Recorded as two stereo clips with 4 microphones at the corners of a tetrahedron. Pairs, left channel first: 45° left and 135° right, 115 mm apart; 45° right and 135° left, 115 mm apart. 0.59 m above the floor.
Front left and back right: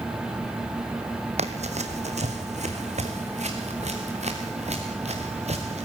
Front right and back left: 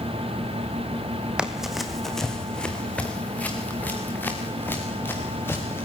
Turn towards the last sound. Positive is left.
turn(degrees=-115)